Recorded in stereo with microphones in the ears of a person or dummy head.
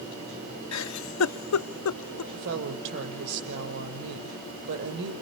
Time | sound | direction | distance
0.7 | a giggle | 70° left (ahead or behind) | 0.5 m
2.3 | a woman speaking | 65° right (ahead or behind) | 6 m